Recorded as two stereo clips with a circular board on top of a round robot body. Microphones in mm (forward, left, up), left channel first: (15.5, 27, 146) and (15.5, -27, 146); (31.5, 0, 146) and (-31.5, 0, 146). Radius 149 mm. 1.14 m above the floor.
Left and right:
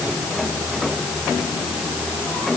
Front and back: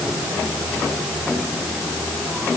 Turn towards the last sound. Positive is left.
No sound to turn to.